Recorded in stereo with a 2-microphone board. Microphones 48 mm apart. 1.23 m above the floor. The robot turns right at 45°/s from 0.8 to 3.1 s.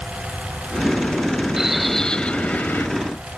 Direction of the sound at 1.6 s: 10° right.